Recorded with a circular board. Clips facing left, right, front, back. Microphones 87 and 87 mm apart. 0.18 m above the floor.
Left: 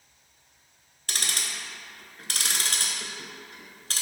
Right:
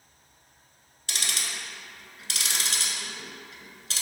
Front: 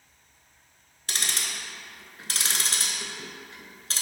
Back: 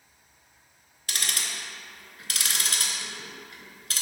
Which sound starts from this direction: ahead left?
Ticking, at 1.1 s.